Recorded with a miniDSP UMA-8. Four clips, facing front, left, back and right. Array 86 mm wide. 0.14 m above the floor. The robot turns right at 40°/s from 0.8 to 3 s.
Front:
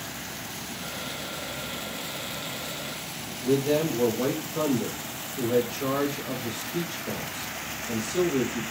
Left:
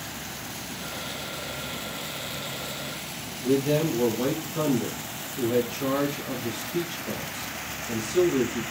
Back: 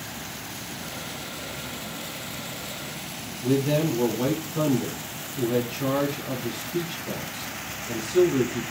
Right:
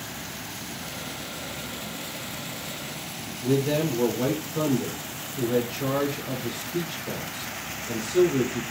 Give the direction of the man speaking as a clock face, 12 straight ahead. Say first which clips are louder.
Left 1 dB, back 1 dB; 5 o'clock.